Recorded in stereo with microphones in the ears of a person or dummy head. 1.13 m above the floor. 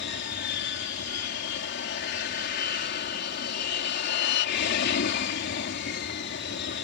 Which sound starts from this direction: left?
An aircraft, at 0.0 s.